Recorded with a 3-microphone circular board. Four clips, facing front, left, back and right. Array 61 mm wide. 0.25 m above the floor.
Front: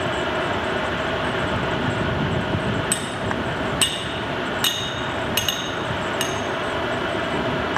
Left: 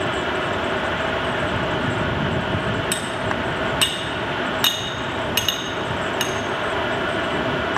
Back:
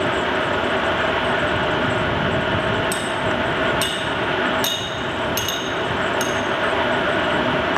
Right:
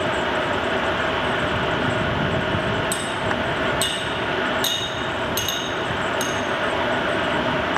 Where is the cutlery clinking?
65° left, 1.3 m.